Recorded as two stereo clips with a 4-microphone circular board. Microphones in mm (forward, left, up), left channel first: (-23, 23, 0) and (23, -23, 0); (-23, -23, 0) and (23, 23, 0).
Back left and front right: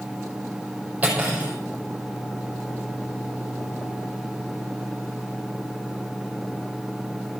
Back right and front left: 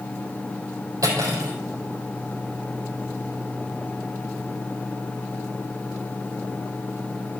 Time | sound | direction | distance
1.0 | cutlery clinking | 25° left | 3.5 m